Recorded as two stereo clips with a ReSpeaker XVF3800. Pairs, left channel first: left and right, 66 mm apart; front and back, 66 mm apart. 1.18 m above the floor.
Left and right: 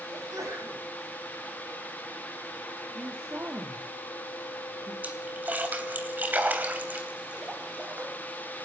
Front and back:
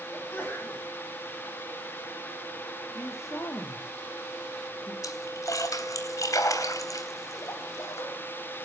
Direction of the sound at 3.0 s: 35° right.